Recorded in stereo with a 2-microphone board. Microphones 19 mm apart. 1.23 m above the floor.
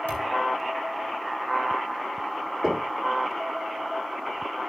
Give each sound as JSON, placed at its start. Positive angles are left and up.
{"t": 0.1, "sound": "a thud", "side_deg": 70, "distance_m": 3.5}
{"t": 2.6, "sound": "knocking", "side_deg": -15, "distance_m": 1.9}